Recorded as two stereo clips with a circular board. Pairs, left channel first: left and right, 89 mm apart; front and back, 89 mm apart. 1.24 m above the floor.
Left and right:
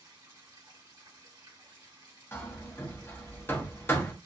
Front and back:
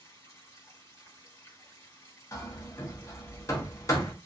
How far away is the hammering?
About 0.7 m.